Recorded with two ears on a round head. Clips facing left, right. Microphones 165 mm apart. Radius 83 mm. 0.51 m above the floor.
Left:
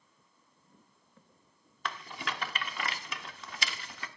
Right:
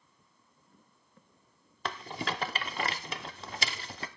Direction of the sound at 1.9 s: 30° right (ahead or behind).